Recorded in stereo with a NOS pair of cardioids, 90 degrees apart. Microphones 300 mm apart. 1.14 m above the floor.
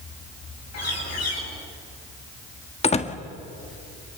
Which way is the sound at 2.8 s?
20° left.